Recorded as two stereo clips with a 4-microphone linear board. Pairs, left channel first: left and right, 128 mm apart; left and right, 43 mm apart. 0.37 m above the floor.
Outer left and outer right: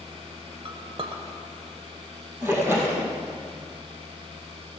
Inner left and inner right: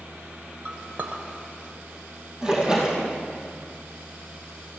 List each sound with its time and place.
0.7 s a clink: 45° right (ahead or behind), 1.0 m
2.4 s a splash: 20° right (ahead or behind), 2.5 m